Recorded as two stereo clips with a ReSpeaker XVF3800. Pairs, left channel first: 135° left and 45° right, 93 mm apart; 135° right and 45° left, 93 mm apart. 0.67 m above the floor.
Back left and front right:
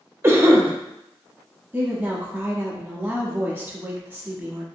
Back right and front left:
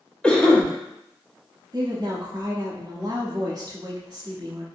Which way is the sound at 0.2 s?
65° right.